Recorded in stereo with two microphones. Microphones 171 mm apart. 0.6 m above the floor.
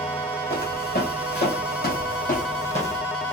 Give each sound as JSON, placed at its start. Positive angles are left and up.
{"t": 0.5, "sound": "footsteps", "side_deg": 65, "distance_m": 1.9}